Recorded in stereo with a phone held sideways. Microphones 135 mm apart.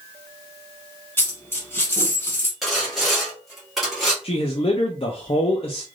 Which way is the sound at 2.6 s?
Centre (ahead or behind).